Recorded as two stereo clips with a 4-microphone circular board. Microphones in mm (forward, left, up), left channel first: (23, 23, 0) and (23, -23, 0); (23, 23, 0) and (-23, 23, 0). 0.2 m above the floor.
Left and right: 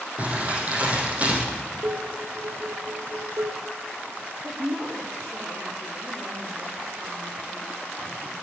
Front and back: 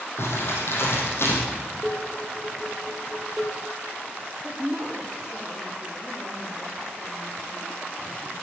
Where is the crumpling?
30° right, 4.5 m.